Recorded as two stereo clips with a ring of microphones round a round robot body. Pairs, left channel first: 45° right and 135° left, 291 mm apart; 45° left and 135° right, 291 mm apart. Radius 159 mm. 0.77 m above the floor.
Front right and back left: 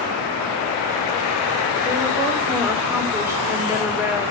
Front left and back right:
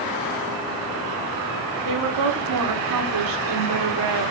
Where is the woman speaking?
145° right, 2.5 m.